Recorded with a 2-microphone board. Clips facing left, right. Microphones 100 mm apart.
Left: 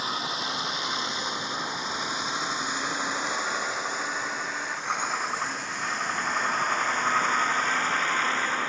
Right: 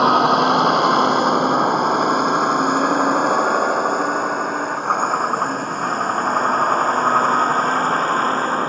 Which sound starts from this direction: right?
A vehicle, at 0.0 s.